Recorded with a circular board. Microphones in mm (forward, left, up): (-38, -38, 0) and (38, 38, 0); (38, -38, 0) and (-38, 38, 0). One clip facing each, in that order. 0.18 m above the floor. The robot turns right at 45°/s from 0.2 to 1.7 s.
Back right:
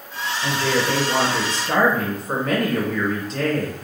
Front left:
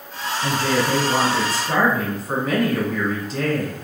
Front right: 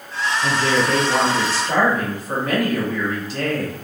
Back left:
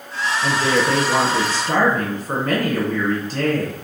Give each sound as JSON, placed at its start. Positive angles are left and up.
{"t": 0.4, "sound": "a woman speaking", "azimuth_deg": 75, "distance_m": 1.8}